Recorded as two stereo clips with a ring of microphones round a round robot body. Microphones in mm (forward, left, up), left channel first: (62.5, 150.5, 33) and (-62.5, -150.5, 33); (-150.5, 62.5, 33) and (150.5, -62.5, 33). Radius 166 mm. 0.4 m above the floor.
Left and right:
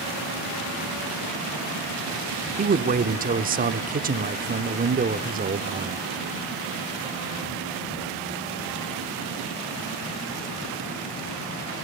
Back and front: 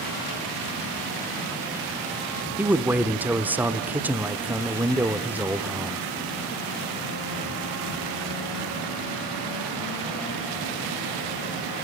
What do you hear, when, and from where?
2.6 s a man speaking: 100° right, 0.8 m